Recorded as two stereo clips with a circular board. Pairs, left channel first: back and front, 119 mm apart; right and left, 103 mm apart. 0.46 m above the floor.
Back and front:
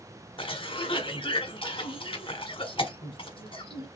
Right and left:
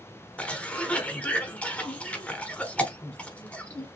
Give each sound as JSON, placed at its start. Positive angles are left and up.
{"t": 0.4, "sound": "a cough", "azimuth_deg": -160, "distance_m": 1.0}